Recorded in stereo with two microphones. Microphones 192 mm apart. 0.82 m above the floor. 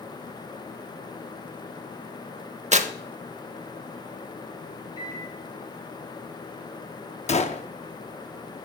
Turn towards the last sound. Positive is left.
turn(degrees=35)  # may be behind; listen again after turning